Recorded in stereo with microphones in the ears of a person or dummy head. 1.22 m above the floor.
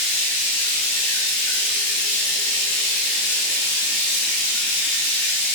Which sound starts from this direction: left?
Running water, at 0.0 s.